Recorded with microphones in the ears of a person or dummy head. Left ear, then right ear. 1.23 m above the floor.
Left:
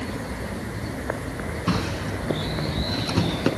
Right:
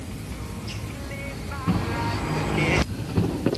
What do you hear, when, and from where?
1.7 s a drawer: 80° left, 4.5 m